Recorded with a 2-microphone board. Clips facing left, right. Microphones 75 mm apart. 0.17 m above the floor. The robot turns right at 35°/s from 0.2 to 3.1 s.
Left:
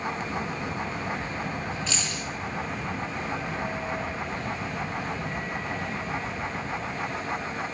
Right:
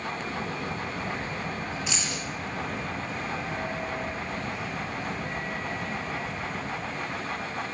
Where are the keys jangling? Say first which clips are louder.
Even; 10° right (ahead or behind), 1.4 m; by 2.2 s 20° right (ahead or behind), 1.4 m.